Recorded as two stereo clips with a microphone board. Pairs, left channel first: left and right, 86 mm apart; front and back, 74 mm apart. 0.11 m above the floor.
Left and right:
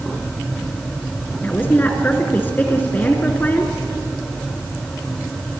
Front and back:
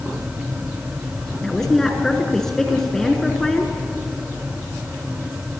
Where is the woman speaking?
75° left, 1.4 m.